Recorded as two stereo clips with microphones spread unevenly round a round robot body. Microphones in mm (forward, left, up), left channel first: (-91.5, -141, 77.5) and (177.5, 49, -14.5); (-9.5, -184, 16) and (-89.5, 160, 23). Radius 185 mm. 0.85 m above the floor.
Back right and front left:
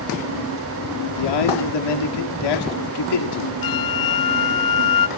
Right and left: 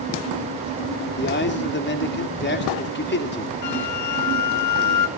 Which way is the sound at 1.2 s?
135° right.